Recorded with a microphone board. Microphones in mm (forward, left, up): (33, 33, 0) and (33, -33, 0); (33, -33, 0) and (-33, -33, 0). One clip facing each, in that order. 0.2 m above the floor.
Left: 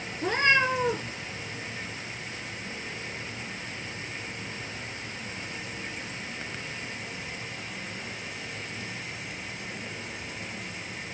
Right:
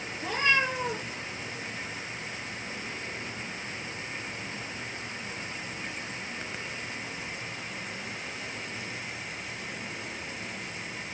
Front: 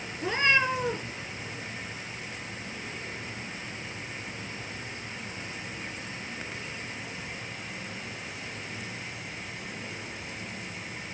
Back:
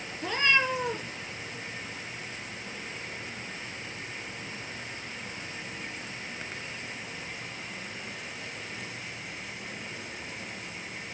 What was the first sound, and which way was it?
A cat meowing, 60° left.